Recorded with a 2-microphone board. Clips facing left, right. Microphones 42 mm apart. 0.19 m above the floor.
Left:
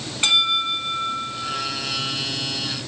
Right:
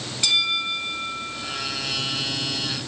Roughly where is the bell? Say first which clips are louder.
Left 3 dB; left.